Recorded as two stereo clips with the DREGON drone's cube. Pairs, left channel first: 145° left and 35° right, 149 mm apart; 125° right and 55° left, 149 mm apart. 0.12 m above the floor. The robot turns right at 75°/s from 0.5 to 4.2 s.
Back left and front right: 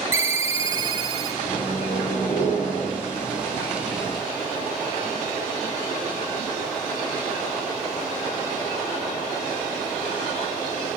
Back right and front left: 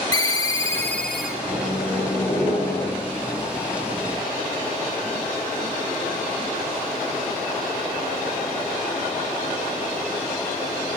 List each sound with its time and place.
0.1 s a ringtone: 85° right, 0.6 m; by 1.3 s 25° right, 0.6 m
1.4 s a microwave: 90° left, 3.5 m; by 3.0 s 155° right, 3.5 m